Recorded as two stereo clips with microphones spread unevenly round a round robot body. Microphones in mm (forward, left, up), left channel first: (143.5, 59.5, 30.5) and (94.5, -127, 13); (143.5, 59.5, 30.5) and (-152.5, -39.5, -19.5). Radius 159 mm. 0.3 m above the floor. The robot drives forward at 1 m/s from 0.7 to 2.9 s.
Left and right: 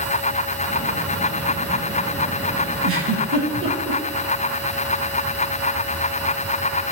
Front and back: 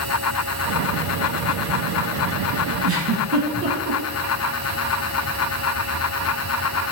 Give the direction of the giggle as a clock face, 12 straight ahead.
4 o'clock.